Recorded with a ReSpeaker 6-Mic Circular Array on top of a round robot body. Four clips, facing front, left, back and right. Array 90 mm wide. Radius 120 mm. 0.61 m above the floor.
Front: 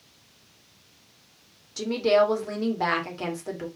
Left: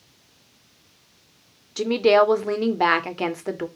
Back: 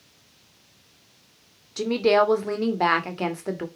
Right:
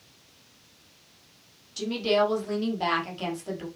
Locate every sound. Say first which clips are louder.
1.8 s a woman speaking: left 7 dB, back 2 dB; 115° left, 2 m